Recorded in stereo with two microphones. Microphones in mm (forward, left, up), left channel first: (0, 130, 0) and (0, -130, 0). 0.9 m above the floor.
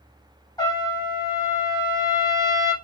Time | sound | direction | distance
0.6 | a trumpet | 15° left (ahead or behind) | 0.6 m